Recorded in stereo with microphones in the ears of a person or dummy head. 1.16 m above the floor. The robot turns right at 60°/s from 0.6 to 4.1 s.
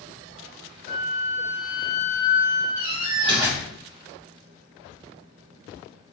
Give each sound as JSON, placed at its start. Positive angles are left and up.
{"t": 0.9, "sound": "a flute", "azimuth_deg": 100, "distance_m": 1.5}
{"t": 2.8, "sound": "a door slam", "azimuth_deg": -65, "distance_m": 1.7}